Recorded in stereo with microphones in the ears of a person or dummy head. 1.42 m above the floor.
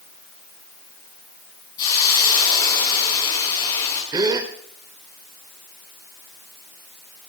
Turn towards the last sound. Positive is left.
turn(degrees=-20)  # may be behind; listen again after turning